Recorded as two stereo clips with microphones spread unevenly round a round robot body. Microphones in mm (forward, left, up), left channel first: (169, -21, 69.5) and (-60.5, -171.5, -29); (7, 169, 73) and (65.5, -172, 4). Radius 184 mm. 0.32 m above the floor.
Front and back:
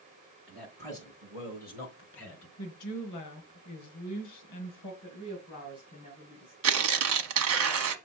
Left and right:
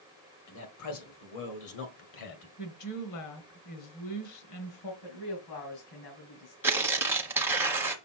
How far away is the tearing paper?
About 1.0 m.